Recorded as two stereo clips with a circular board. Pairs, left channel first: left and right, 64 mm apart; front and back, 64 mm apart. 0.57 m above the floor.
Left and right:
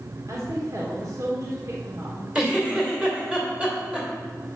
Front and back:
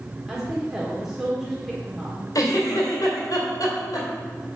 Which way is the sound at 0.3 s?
95° right.